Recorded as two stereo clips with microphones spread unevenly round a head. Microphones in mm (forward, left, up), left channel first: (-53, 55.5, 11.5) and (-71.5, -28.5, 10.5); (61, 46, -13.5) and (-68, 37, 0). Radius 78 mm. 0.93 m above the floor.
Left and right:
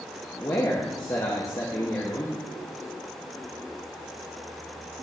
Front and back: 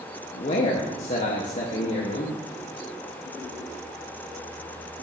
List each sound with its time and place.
0.3 s a man speaking: 20° left, 1.1 m